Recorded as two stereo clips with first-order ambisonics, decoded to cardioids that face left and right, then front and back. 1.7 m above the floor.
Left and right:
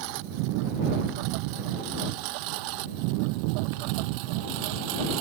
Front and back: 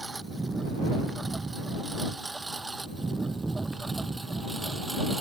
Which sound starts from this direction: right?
A lawn mower, at 0.0 s.